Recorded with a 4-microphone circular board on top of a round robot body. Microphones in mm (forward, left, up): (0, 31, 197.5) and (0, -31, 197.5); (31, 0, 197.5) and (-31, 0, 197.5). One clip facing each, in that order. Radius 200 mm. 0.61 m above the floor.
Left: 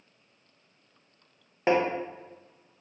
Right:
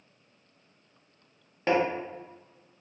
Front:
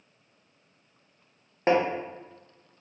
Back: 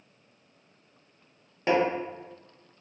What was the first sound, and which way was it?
Tapping, 30° left.